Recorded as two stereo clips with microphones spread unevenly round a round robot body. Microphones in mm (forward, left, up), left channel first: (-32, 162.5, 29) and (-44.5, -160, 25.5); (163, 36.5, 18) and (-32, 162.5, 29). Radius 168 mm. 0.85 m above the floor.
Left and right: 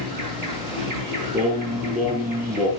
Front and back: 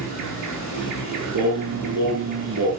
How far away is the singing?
About 4 m.